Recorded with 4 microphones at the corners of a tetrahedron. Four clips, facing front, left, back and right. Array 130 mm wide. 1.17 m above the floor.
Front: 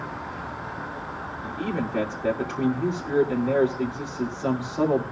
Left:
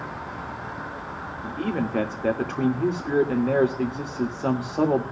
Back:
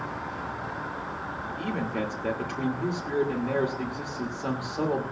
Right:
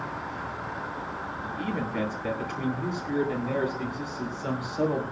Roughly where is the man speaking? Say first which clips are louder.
Left 6 dB, front 4 dB; left.